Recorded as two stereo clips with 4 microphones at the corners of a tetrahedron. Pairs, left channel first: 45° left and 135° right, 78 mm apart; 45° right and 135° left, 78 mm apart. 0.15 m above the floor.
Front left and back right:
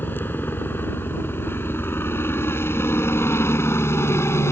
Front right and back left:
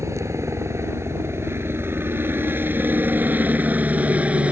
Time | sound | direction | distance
0.0 | a helicopter | 100° left | ?